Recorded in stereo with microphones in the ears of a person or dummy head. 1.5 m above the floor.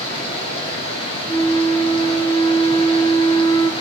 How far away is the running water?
About 8 m.